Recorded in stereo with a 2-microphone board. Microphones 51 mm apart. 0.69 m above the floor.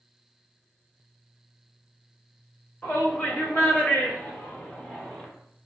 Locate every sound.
2.8 s a shout: 30° left (ahead or behind), 1.5 m; by 5.3 s 20° left (ahead or behind), 1.0 m